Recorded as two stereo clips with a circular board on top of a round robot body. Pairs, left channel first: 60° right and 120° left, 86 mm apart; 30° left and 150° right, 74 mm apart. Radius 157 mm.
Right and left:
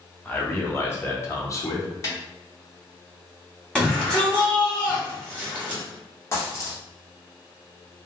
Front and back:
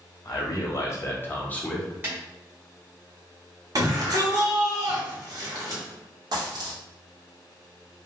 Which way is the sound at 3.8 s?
135° right.